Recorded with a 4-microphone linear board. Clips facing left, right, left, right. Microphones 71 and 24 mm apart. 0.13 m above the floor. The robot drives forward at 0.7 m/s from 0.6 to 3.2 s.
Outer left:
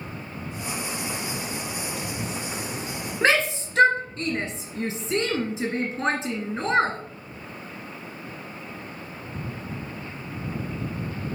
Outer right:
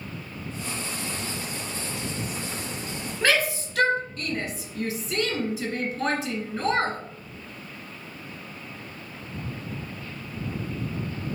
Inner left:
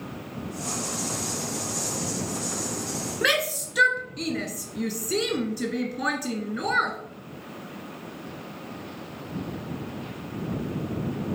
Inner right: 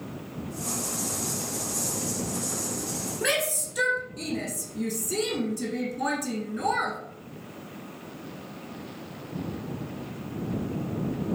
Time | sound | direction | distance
3.2 | a shout | 30° left (ahead or behind) | 1.5 m